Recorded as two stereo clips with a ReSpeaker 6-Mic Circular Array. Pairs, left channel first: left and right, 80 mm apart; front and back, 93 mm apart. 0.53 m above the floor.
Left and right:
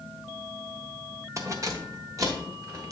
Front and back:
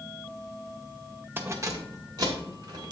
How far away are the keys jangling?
About 0.7 m.